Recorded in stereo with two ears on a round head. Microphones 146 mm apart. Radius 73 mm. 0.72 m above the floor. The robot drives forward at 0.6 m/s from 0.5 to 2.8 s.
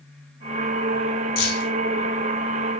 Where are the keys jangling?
65° left (ahead or behind), 3.5 m.